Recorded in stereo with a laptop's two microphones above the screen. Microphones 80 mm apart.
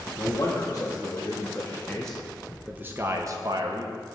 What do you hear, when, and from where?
0.2 s a man speaking: 40° left (ahead or behind), 2.0 m; by 4.0 s 60° right (ahead or behind), 1.2 m